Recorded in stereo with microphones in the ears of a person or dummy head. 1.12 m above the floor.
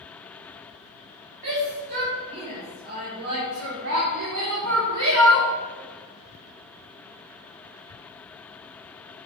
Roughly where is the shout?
Right.